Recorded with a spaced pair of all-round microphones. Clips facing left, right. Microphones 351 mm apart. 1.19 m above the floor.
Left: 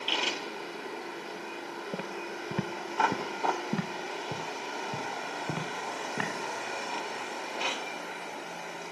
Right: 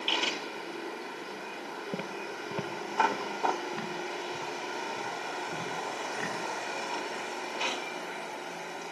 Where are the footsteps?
5° right (ahead or behind), 1.3 m; by 6.3 s 75° left (ahead or behind), 5 m.